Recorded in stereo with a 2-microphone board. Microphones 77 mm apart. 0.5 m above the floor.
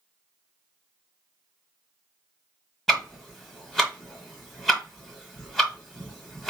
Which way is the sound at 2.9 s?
Centre (ahead or behind).